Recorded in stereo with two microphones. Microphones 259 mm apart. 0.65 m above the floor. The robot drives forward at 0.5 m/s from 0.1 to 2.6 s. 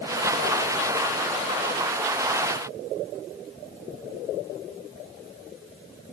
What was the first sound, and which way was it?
Only background noise.